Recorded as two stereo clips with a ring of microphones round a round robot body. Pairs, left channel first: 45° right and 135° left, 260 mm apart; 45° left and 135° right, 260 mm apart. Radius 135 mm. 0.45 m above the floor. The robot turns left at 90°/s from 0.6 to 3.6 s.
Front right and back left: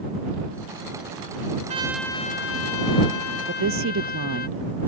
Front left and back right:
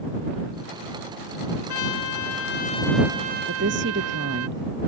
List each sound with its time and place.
1.7 s a trumpet: 70° left; by 4.5 s 100° right
3.5 s a woman speaking: 175° right; by 4.9 s 175° left